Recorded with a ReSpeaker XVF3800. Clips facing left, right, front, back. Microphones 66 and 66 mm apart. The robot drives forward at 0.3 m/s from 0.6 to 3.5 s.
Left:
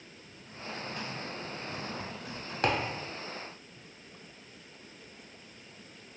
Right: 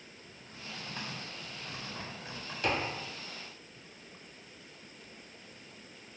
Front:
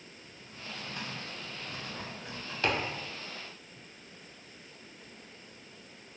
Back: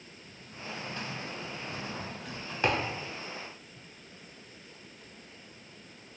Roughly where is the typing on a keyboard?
Ahead right.